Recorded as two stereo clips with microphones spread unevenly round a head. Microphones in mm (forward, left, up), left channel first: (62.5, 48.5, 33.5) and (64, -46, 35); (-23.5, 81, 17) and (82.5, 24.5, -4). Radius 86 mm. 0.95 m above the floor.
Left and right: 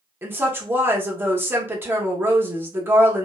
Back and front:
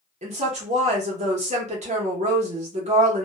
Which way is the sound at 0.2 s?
20° right.